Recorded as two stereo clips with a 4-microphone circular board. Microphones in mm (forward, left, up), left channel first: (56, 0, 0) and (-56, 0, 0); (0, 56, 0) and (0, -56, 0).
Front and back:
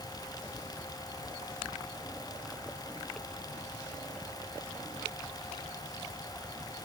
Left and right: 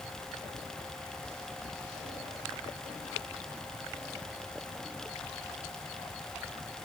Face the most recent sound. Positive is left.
No sound to turn to.